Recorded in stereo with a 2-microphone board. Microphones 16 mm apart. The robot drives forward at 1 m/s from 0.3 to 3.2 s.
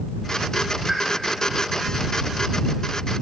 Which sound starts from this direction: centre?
A pop, at 0.9 s.